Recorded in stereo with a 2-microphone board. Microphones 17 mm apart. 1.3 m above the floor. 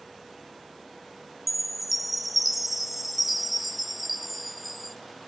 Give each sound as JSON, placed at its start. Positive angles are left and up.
{"t": 1.5, "sound": "a chime", "side_deg": 0, "distance_m": 0.6}